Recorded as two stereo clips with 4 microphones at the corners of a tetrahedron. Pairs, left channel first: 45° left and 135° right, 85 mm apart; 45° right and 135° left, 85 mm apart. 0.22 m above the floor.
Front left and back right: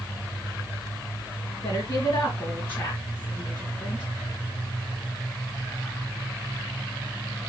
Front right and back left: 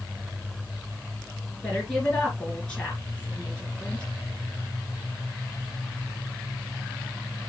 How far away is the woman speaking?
About 3 m.